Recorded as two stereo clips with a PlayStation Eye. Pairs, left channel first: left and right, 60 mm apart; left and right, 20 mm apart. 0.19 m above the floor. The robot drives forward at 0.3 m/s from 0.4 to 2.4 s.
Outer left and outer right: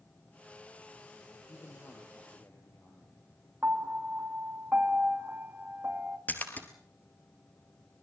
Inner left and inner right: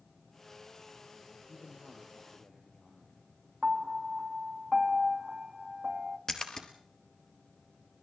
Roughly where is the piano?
Right.